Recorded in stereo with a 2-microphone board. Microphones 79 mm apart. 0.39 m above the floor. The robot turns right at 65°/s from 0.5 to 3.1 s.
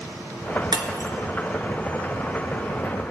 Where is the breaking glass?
65° right (ahead or behind), 1.3 m; by 1.1 s 40° right (ahead or behind), 1.3 m.